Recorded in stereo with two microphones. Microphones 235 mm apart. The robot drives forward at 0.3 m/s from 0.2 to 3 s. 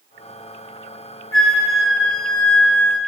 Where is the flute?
65° left (ahead or behind), 1.6 m; by 3.0 s 80° left, 1.5 m.